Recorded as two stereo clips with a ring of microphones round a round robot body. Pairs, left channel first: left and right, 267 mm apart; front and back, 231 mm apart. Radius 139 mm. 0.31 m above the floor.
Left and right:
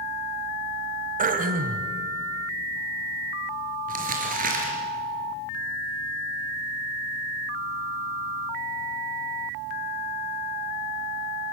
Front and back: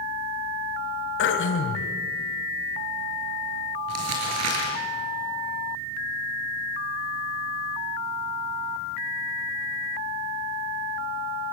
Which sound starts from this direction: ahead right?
Throat clearing, at 1.2 s.